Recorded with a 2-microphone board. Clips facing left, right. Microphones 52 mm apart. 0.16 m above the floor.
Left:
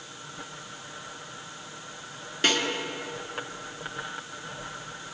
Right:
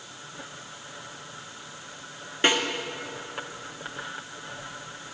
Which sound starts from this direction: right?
A snare drum, at 2.4 s.